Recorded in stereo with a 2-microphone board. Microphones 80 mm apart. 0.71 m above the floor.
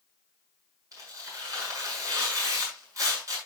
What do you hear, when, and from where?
0.9 s tearing paper: 45° right (ahead or behind), 5.5 m